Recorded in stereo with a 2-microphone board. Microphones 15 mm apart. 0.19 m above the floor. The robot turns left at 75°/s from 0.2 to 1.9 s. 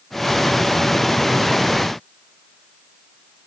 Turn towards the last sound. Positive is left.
No sound to turn to.